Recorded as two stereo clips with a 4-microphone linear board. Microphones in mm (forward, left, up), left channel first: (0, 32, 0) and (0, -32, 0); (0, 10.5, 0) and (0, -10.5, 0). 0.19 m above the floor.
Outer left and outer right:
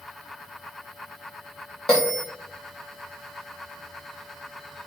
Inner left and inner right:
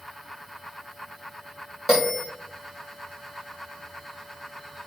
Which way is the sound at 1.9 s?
10° left (ahead or behind).